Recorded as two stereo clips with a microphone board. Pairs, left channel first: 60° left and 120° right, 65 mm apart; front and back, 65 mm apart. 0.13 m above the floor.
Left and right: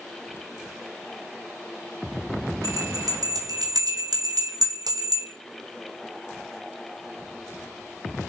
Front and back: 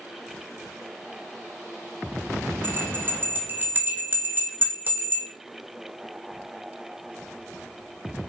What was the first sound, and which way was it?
A bell, 125° right.